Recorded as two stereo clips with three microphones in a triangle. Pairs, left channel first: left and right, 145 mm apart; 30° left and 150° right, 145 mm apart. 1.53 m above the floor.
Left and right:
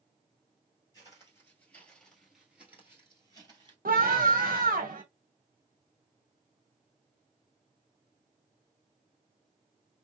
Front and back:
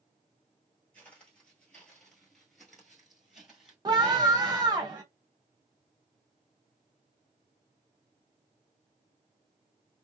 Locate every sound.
0.9 s footsteps: 100° left, 1.6 m; by 3.8 s 70° right, 1.8 m
3.9 s a scream: 90° right, 1.3 m